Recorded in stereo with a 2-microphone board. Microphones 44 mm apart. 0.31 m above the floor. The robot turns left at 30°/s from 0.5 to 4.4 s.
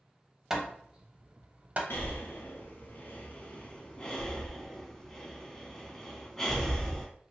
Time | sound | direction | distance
0.5 | hammering | 10° right (ahead or behind) | 0.6 m
1.9 | breathing | 80° left | 0.7 m